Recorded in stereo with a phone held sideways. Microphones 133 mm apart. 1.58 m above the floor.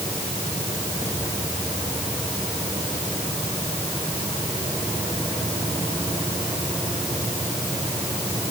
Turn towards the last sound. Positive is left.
No sound to turn to.